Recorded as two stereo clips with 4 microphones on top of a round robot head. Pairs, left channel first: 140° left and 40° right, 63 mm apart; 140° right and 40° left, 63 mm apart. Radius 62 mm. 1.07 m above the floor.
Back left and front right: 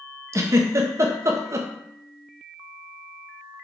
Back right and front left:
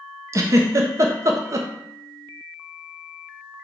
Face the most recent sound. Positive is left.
turn(degrees=0)